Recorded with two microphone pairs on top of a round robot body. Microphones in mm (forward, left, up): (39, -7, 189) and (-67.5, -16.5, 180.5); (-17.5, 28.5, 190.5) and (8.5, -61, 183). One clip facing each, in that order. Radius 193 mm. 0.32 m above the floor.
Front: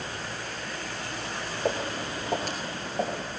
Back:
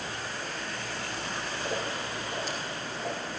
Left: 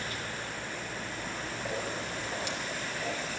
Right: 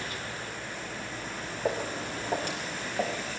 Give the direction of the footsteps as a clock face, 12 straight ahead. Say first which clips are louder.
Front 6 dB, right 6 dB; 1 o'clock.